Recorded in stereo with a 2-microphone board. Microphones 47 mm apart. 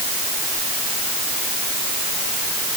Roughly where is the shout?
No shout in this recording.